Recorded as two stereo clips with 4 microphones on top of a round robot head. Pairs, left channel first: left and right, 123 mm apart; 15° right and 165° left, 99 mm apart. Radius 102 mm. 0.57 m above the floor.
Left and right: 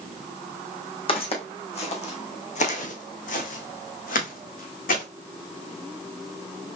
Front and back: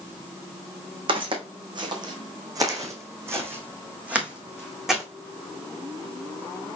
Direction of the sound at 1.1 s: 135° left.